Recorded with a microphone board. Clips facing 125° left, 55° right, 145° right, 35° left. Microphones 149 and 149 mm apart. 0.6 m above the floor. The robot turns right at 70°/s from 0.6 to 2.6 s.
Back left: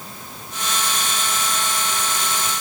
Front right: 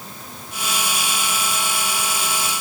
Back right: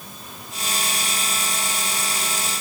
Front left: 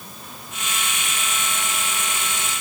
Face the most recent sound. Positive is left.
No sound to turn to.